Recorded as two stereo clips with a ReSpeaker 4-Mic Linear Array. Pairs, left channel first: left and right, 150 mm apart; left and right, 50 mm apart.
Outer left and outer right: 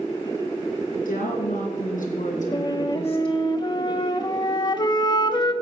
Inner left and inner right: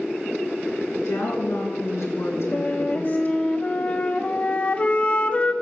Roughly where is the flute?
Left.